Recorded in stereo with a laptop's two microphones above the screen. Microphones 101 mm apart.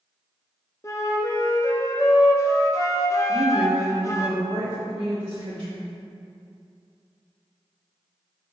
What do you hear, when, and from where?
0.8 s a flute: 30° left (ahead or behind), 0.6 m
3.3 s a woman speaking: 40° right (ahead or behind), 1.1 m